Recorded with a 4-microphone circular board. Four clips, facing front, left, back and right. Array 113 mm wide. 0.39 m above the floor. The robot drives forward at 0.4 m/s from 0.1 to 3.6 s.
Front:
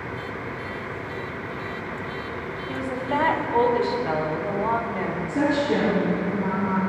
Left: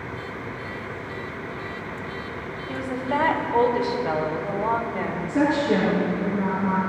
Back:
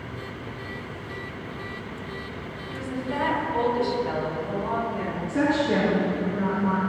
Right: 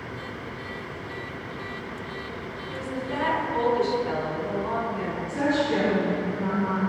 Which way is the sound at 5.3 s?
130° left.